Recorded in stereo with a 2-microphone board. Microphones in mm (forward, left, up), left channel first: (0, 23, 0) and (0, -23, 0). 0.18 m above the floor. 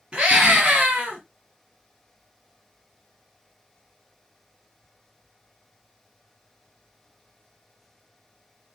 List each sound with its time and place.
0.1 s a scream: 25° right (ahead or behind), 2 m